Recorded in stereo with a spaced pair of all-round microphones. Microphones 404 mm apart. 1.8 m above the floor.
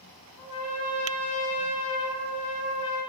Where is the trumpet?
35° left (ahead or behind), 0.9 m.